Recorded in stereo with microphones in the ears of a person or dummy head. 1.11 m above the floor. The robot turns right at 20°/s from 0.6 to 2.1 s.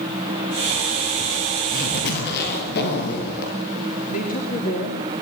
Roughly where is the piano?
I don't hear a piano.